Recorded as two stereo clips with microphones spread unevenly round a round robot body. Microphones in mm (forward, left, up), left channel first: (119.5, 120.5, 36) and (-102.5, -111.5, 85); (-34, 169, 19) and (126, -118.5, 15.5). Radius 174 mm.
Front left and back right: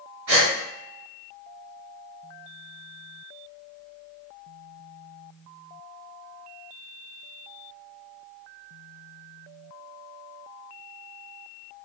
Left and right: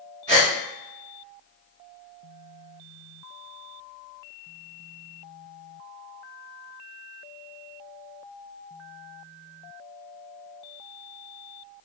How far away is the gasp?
About 1.4 m.